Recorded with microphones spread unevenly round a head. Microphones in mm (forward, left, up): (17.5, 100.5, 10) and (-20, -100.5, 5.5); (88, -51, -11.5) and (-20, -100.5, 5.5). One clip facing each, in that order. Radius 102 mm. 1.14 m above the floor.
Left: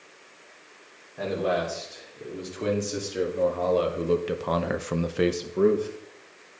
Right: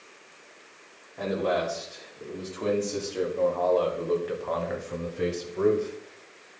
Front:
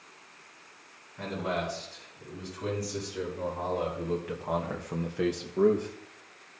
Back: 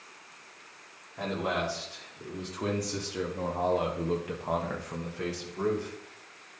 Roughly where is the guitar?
No guitar in this recording.